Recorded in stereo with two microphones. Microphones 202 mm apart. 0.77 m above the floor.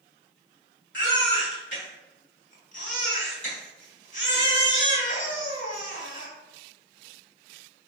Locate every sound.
0.9 s a baby crying: 70° left (ahead or behind), 3 m